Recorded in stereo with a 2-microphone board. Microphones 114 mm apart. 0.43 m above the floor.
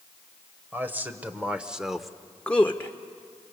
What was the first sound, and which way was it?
A man speaking, 20° right (ahead or behind).